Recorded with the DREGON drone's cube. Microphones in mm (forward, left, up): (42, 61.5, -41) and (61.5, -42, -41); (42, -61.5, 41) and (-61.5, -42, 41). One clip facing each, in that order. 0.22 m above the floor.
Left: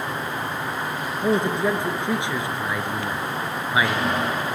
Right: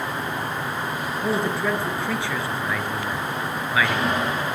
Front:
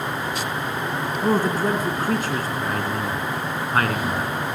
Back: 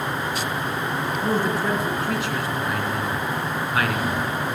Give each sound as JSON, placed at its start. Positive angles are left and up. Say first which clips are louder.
{"t": 1.2, "sound": "a man speaking", "louder": "left 3 dB, front 3 dB", "azimuth_deg": 30, "distance_m": 3.0}